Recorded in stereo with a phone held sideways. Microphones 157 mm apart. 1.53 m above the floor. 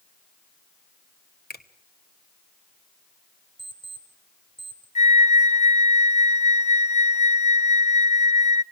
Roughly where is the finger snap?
Left.